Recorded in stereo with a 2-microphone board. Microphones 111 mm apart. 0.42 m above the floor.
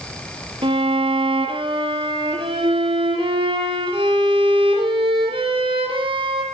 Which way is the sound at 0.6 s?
50° right (ahead or behind).